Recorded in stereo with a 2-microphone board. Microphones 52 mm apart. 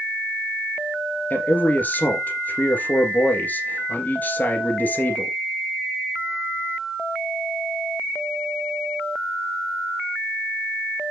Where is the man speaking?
35° left (ahead or behind), 2.5 m.